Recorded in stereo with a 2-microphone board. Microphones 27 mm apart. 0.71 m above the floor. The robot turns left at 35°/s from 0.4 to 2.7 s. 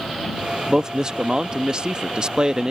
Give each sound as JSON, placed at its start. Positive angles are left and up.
{"t": 0.7, "sound": "a man speaking", "azimuth_deg": -50}